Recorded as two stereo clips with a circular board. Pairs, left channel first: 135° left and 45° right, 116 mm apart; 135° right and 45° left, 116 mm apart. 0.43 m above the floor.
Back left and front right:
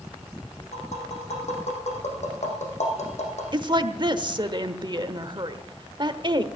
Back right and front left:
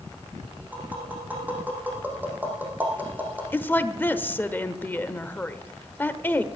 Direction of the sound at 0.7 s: 120° left.